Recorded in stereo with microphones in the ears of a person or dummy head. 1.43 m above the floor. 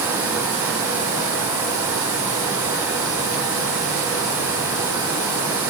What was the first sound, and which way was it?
Only background noise.